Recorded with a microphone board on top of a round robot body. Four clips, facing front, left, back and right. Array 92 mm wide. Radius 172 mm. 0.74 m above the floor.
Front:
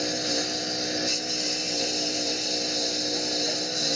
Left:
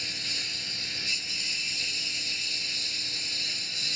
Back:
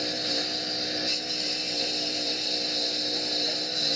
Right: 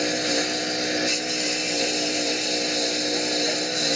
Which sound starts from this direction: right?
A lawn mower, at 0.0 s.